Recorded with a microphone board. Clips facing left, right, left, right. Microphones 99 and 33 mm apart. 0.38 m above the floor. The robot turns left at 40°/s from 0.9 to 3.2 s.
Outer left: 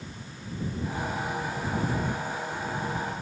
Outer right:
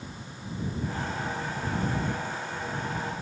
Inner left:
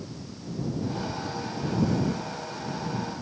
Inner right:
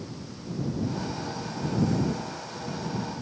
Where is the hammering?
No hammering in this recording.